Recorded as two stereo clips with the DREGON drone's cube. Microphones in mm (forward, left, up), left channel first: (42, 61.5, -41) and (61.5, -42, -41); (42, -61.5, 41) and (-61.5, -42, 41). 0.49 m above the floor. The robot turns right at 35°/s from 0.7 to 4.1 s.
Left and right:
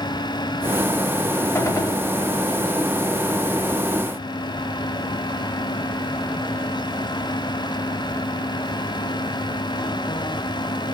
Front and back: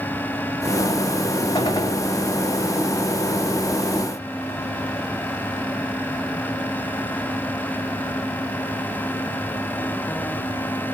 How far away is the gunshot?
About 0.6 m.